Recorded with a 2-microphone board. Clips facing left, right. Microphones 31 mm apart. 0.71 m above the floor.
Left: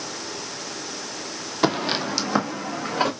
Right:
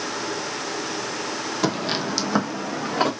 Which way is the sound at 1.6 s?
25° left (ahead or behind).